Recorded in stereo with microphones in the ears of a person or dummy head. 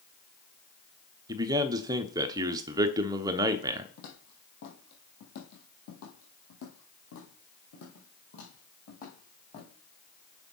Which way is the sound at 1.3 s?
15° right (ahead or behind).